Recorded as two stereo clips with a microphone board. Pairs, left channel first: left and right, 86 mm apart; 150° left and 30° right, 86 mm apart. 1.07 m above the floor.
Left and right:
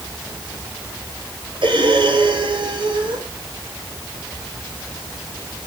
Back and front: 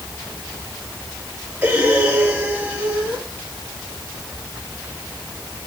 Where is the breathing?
100° right, 4 m.